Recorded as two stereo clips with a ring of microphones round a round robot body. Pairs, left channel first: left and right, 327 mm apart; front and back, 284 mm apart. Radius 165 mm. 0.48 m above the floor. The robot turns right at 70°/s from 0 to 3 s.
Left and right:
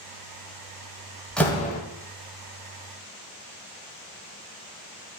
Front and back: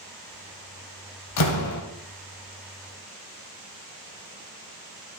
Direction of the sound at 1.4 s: Straight ahead.